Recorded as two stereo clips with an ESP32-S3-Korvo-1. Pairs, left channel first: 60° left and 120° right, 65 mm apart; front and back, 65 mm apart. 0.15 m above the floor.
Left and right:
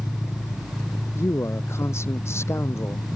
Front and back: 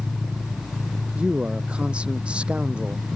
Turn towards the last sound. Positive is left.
turn(degrees=110)